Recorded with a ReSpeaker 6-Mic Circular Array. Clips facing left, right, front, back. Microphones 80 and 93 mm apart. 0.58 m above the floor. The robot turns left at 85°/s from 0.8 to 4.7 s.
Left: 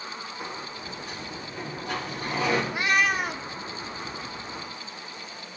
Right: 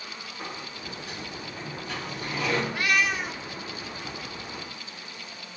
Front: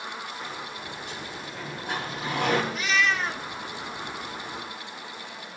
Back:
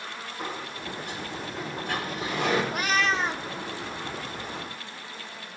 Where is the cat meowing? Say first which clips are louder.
Left 2 dB, even; 160° left, 0.5 m; by 3.5 s 95° left, 0.5 m.